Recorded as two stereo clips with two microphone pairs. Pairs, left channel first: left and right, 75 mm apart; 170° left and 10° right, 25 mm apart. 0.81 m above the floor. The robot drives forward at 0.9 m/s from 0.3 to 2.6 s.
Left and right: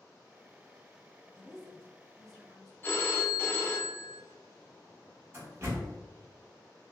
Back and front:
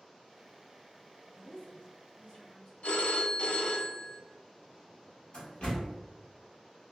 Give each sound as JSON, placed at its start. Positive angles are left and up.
{"t": 1.3, "sound": "a woman speaking", "azimuth_deg": -170, "distance_m": 1.1}
{"t": 2.8, "sound": "a phone ringing", "azimuth_deg": 155, "distance_m": 0.6}
{"t": 5.3, "sound": "a door slam", "azimuth_deg": -145, "distance_m": 1.3}